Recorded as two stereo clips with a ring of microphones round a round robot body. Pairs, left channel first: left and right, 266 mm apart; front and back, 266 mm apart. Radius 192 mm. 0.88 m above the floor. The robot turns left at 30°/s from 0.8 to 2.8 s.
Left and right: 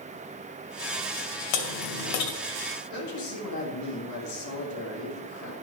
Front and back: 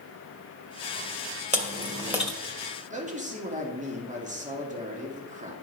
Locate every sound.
1.5 s chewing: 115° left, 2.0 m; by 2.3 s 90° left, 2.0 m
2.9 s a man speaking: 115° left, 2 m